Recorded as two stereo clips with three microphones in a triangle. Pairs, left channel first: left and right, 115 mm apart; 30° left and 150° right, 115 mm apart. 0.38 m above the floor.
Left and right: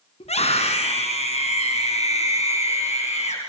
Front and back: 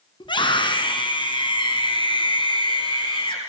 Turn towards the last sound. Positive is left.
turn(degrees=75)